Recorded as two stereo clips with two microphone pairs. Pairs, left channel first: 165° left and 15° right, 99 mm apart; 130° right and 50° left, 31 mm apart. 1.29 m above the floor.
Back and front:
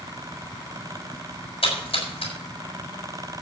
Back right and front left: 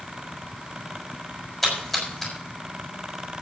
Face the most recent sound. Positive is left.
turn(degrees=150)